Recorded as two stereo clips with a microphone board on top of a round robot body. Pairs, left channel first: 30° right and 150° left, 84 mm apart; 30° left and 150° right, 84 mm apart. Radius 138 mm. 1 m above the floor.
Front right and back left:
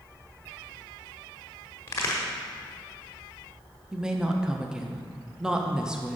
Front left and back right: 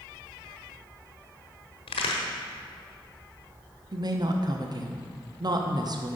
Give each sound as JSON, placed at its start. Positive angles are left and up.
{"t": 1.9, "sound": "a crack", "azimuth_deg": 30, "distance_m": 1.1}
{"t": 3.9, "sound": "a woman speaking", "azimuth_deg": -130, "distance_m": 1.0}